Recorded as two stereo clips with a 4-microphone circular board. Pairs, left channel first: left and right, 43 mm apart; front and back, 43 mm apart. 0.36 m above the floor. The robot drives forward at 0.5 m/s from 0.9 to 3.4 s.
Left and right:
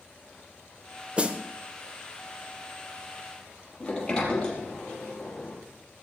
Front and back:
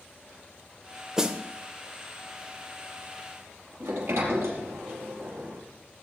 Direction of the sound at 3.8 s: 165° left.